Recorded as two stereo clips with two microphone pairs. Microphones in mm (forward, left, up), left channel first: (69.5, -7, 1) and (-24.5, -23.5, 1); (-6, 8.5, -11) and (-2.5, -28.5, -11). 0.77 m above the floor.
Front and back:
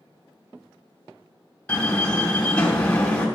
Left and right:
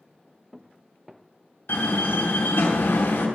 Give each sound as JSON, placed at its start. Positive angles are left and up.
{"t": 1.7, "sound": "a door slam", "azimuth_deg": 85, "distance_m": 3.0}